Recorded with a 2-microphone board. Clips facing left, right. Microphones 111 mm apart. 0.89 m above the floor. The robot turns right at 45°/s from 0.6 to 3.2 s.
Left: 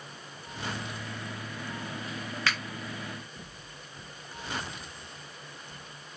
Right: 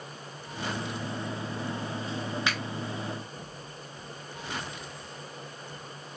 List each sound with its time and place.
2.5 s a finger snap: 20° right (ahead or behind), 1.1 m; by 2.6 s 10° right (ahead or behind), 1.1 m